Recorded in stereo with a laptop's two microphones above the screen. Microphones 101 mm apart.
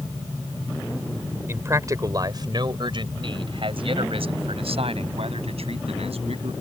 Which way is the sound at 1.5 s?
25° right (ahead or behind).